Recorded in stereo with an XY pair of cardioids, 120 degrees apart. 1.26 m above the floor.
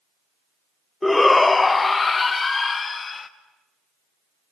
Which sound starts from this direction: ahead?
A shout, at 1.0 s.